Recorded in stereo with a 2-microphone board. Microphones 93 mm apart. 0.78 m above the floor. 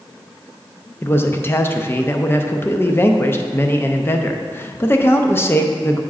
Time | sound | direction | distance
1.0 | a man speaking | 25° left (ahead or behind) | 0.6 m